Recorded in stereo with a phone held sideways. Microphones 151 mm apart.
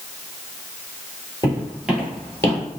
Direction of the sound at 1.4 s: 25° right (ahead or behind).